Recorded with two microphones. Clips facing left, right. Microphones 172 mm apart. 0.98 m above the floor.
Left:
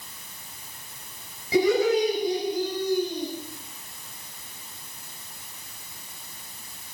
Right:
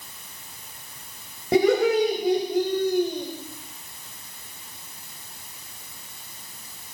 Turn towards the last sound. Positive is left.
turn(degrees=-55)  # may be behind; listen again after turning